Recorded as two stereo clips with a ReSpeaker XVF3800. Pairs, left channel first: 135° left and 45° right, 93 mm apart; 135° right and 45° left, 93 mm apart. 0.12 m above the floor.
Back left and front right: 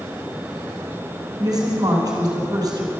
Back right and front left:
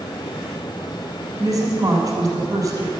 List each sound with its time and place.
1.4 s a woman speaking: 5° right, 2.5 m